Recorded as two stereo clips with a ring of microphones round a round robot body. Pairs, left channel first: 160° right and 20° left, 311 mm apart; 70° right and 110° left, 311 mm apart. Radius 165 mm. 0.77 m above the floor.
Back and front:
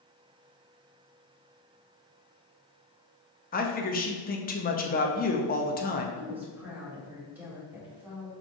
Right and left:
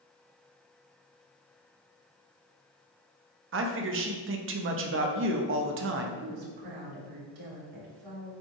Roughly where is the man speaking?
Behind left.